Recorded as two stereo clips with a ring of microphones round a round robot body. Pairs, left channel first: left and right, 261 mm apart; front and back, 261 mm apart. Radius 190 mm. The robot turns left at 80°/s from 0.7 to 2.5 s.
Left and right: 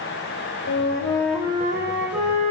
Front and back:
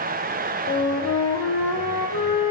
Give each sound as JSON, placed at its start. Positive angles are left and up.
{"t": 0.7, "sound": "a flute", "azimuth_deg": 50, "distance_m": 1.9}